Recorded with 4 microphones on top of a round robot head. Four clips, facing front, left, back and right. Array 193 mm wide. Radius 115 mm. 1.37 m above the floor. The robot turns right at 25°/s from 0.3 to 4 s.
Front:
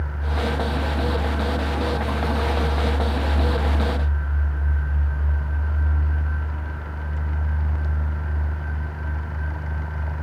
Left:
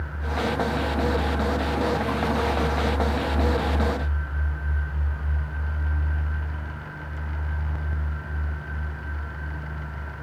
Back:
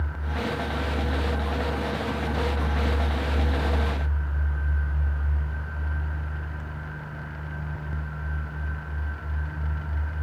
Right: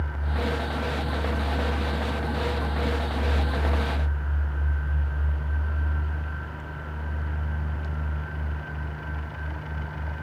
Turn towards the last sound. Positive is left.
No sound to turn to.